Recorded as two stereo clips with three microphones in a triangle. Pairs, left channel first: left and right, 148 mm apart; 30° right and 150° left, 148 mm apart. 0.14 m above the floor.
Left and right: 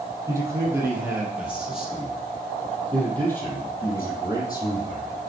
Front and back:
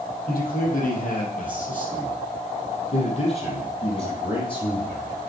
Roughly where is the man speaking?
Ahead.